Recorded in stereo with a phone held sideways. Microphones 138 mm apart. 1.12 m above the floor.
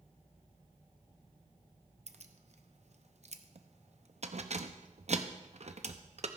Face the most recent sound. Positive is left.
turn(degrees=-60)  # may be behind; listen again after turning